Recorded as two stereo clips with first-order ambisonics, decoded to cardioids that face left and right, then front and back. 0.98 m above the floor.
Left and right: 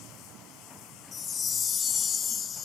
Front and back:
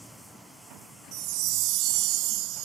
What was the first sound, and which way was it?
A chime, 155° left.